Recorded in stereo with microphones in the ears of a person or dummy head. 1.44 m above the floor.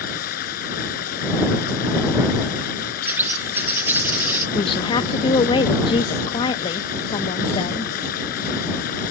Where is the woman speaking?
30° left (ahead or behind).